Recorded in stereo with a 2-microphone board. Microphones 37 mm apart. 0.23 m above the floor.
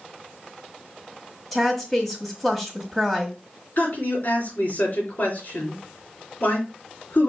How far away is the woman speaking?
About 1.4 m.